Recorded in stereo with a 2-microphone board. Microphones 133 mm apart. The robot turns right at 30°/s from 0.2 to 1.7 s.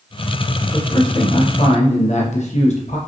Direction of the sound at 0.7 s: 25° left.